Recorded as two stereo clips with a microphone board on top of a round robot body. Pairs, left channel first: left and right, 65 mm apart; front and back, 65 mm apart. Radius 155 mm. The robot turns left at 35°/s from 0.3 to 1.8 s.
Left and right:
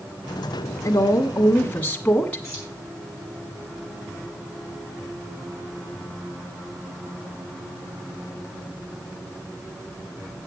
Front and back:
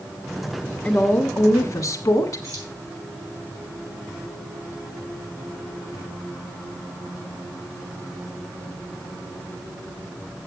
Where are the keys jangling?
140° left, 5 m.